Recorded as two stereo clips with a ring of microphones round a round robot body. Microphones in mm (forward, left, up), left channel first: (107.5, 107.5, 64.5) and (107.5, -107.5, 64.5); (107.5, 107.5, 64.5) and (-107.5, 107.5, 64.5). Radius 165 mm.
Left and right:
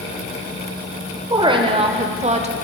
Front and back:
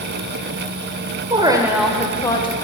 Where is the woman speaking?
140° right, 1.0 m; by 2.5 s 55° right, 1.1 m.